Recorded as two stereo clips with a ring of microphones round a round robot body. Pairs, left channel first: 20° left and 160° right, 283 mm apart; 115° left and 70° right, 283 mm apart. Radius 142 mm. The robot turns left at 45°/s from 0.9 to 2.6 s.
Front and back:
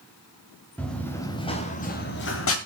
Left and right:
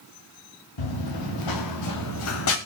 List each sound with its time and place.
0.8 s running footsteps: 110° left, 2.5 m; by 2.6 s 65° left, 2.5 m